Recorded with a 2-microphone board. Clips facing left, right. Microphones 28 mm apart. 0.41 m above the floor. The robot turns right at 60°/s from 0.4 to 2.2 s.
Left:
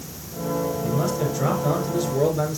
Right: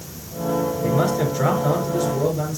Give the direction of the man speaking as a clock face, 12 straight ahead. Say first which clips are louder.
Right 4 dB; 2 o'clock.